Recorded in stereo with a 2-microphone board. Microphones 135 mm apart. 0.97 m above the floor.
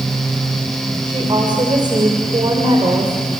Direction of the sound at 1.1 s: 40° right (ahead or behind).